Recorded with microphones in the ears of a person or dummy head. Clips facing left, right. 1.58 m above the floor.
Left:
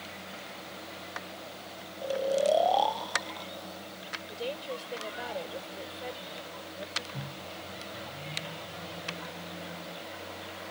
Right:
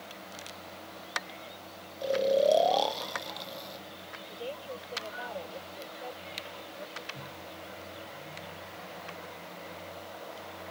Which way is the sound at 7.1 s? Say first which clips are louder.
Left 2 dB; 45° left (ahead or behind).